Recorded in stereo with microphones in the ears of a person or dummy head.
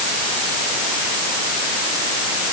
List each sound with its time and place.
Only background noise.